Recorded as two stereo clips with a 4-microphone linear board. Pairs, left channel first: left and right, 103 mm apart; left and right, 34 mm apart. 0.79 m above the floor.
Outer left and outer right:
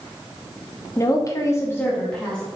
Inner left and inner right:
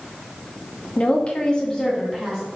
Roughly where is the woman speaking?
Left.